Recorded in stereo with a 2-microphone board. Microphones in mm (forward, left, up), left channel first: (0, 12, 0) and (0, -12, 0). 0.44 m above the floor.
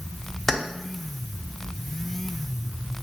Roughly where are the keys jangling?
Centre.